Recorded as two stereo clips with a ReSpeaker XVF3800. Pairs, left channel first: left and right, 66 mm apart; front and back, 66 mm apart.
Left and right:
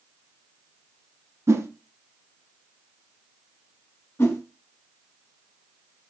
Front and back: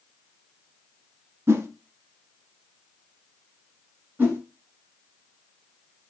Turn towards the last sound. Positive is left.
turn(degrees=125)